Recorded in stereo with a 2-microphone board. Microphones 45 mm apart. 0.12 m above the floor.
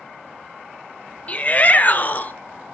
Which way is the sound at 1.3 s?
30° left (ahead or behind).